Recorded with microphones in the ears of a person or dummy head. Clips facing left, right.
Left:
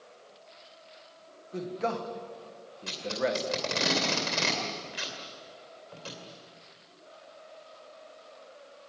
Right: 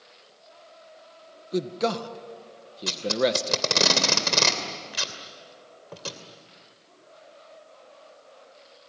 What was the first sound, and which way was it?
A man speaking, 50° right (ahead or behind).